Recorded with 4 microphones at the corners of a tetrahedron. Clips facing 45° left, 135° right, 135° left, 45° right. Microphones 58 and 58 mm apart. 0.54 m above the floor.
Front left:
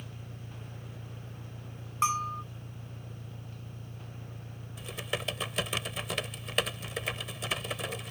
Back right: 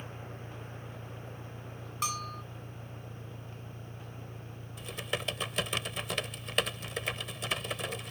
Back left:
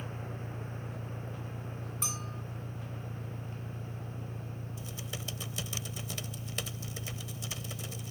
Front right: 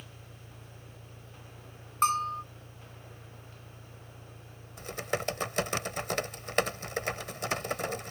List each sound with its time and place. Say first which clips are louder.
0.0 s an engine running: back right 3 dB, back left 10 dB; 125° left
2.0 s a bell: front left 7 dB, front right 17 dB; 15° right
4.8 s typing on a keyboard: even, front right 14 dB; 45° right